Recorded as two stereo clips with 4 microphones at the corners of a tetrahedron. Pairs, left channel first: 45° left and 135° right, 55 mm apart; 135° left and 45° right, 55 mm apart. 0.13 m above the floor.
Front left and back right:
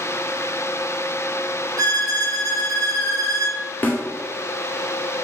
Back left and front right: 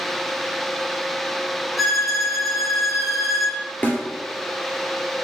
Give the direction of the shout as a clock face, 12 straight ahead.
I don't hear a shout.